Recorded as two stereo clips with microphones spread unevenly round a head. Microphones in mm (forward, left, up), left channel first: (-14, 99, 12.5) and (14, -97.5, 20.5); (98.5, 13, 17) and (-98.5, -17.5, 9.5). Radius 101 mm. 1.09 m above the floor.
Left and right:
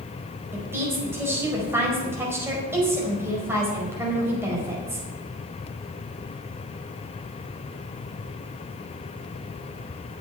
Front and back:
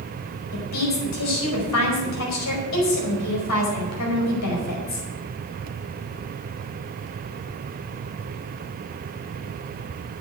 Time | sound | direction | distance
0.5 | a woman speaking | 5° right | 4.5 m